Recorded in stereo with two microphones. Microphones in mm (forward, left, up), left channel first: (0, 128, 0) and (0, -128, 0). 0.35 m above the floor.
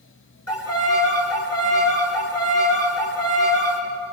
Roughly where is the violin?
Left.